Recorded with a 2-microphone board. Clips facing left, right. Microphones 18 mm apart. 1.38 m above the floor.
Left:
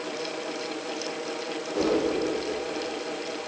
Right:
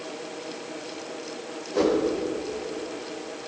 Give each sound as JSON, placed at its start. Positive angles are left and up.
{"t": 1.7, "sound": "a whoosh", "side_deg": -35, "distance_m": 4.0}